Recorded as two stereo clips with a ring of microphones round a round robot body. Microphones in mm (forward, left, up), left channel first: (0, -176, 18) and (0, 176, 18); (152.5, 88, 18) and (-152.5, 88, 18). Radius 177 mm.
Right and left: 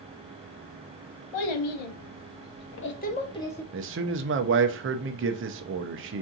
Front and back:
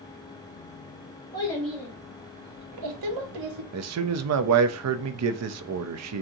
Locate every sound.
1.3 s a child speaking: 80° right, 1.1 m; by 3.6 s 175° right, 1.2 m
3.7 s a man speaking: 145° left, 0.6 m